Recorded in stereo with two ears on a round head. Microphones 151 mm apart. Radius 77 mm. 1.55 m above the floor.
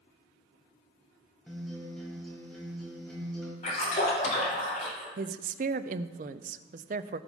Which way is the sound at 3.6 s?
45° left (ahead or behind).